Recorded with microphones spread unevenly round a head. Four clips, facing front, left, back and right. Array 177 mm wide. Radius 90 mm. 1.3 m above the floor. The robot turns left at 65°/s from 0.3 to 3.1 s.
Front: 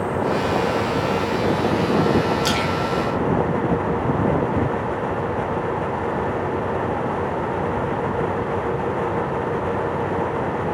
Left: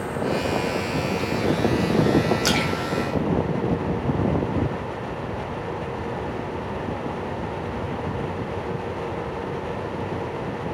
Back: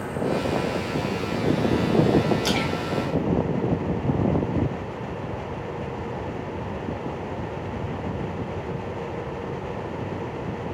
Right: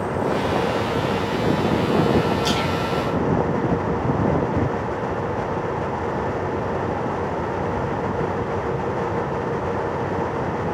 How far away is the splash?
About 1.0 m.